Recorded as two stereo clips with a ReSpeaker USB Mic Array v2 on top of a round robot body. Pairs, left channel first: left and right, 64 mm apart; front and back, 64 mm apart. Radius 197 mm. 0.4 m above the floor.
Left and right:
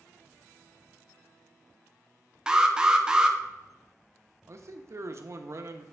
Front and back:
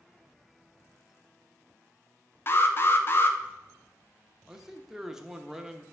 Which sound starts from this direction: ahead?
An alarm, at 2.5 s.